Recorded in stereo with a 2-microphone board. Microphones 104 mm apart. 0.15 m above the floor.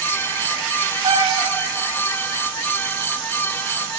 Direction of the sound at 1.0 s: 85° right.